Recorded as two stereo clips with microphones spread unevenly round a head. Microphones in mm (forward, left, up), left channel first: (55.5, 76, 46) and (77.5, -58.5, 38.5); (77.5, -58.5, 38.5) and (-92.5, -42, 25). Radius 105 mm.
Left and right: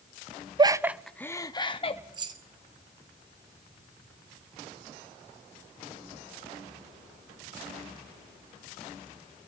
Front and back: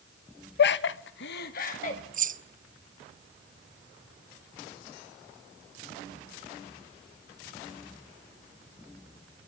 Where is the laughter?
25° right, 1.1 m; by 2.0 s 55° left, 1.9 m.